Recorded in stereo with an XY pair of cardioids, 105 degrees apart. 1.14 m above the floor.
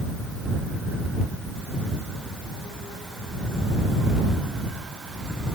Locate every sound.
Only background noise.